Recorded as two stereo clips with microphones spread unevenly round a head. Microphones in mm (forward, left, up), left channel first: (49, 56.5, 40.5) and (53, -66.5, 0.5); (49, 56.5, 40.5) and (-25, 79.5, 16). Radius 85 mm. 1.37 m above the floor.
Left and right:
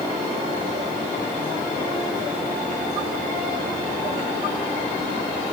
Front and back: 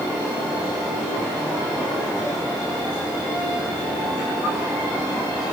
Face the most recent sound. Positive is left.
No sound to turn to.